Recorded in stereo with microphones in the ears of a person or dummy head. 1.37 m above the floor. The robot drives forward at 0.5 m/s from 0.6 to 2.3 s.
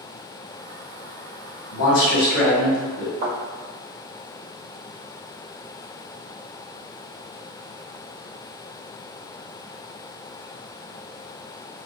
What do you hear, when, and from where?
1.7 s a man speaking: 75° left (ahead or behind), 1.7 m; by 3.1 s 65° left (ahead or behind), 1.8 m
3.2 s a thud: 25° right (ahead or behind), 2.0 m